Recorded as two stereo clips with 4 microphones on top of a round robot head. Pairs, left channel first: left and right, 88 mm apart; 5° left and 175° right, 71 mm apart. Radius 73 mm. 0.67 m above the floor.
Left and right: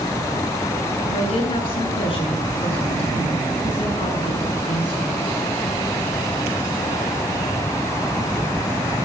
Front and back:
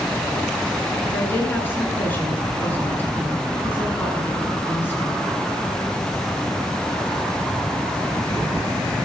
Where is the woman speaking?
70° left, 9.5 m.